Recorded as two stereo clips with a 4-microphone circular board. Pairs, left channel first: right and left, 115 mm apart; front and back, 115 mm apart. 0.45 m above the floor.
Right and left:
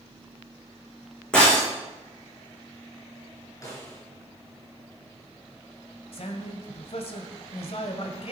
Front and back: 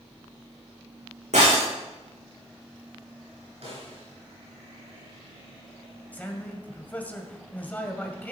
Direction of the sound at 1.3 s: 170° right.